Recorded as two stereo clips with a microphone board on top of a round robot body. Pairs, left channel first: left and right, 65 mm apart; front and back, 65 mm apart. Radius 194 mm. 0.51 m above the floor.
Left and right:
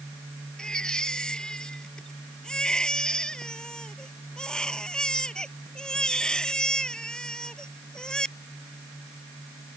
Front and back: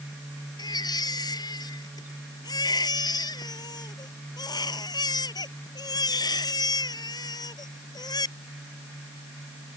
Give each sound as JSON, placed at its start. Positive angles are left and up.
{"t": 0.6, "sound": "a baby crying", "azimuth_deg": 10}